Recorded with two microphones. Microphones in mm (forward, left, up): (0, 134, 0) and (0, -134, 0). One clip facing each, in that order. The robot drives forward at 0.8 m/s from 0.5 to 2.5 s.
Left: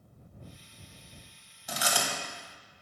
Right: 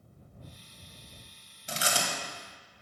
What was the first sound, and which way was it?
Chewing, 30° right (ahead or behind).